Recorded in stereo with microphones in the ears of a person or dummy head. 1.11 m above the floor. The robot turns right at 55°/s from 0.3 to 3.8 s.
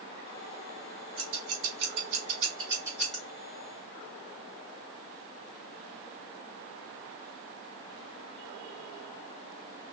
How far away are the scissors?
About 2.5 m.